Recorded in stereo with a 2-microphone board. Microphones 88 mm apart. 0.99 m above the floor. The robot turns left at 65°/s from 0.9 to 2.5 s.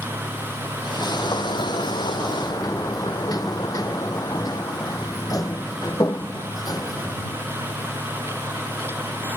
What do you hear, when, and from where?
1.0 s a sliding door: 145° left; by 7.4 s 45° left